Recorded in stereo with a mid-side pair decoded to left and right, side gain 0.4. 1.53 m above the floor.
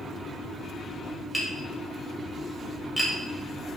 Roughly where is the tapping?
Ahead.